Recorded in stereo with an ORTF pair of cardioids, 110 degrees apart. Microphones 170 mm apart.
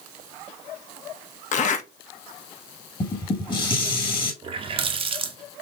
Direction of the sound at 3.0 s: 30° left.